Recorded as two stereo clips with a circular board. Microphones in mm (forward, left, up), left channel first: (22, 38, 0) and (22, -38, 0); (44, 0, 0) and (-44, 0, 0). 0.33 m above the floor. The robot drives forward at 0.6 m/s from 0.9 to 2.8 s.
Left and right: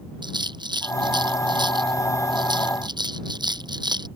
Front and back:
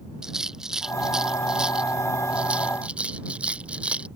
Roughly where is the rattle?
Right.